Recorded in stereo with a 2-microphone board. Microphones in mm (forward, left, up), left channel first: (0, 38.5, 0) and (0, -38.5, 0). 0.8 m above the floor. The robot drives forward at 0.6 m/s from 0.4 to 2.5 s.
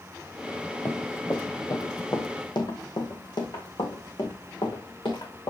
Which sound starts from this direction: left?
Running footsteps, at 0.8 s.